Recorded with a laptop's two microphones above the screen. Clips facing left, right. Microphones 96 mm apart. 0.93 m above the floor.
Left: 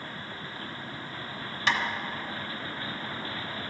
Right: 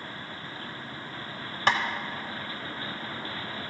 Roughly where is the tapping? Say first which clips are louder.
Right 3 dB; right.